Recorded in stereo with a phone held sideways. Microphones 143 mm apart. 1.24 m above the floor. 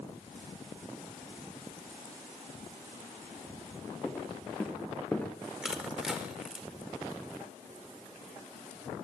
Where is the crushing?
5° right (ahead or behind), 5 m.